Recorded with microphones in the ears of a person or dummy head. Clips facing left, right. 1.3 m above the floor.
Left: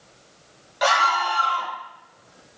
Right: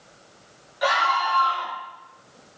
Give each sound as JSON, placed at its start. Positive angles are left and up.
{"t": 0.8, "sound": "a scream", "side_deg": 80, "distance_m": 1.3}